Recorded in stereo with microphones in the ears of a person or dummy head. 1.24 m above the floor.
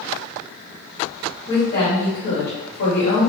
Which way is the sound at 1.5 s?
40° left (ahead or behind).